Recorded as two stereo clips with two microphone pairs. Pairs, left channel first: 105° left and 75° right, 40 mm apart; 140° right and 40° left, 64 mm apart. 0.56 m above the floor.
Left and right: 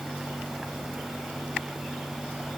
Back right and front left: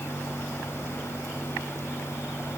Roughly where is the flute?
No flute in this recording.